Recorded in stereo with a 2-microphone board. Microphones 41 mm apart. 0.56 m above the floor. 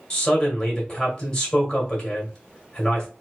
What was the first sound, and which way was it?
A man speaking, 25° left (ahead or behind).